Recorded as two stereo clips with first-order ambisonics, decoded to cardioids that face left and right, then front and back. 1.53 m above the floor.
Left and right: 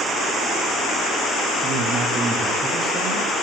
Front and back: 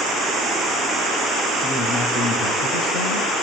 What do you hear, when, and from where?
1.6 s a man speaking: 40° right, 2.5 m; by 3.3 s 10° right, 2 m